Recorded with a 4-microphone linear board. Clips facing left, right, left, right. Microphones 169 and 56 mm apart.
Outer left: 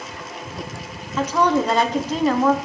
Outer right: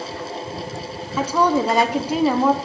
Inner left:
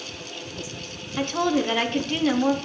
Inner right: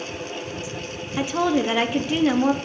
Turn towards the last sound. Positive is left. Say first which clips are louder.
# even, inner right 2 dB
turn(degrees=-10)  # may be behind; listen again after turning